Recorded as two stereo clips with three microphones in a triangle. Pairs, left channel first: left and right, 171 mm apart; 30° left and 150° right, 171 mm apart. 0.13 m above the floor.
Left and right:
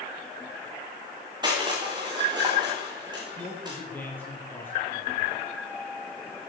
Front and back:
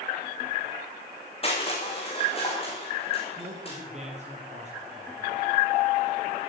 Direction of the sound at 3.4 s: 170° left.